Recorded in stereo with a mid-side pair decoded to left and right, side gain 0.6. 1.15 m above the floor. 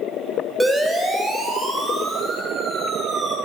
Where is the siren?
10° right, 6.5 m; by 3.4 s 15° right, 10 m.